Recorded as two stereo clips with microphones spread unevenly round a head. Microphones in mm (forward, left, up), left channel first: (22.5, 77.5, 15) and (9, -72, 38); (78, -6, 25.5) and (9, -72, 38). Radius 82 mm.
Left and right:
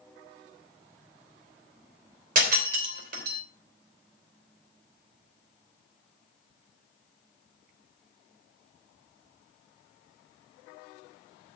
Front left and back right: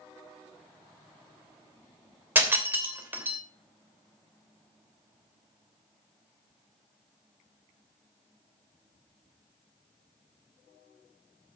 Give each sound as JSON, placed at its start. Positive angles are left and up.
{"t": 2.4, "sound": "breaking glass", "azimuth_deg": -70, "distance_m": 3.0}